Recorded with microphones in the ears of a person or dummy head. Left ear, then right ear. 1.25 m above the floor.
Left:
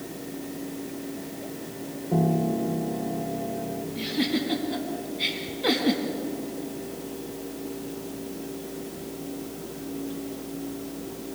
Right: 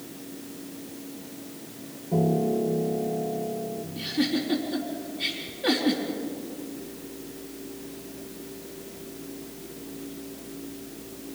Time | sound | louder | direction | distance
2.1 | a piano | right 1 dB | 25° left (ahead or behind) | 1.8 m
4.0 | a giggle | even | 25° left (ahead or behind) | 4.5 m